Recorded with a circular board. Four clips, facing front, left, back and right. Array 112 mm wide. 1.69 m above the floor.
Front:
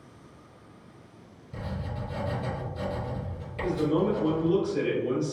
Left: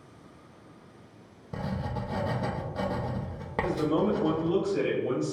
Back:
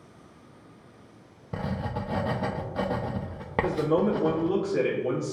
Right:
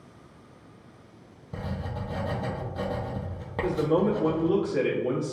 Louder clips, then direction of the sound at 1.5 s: Left 1 dB, back 5 dB; 170° left.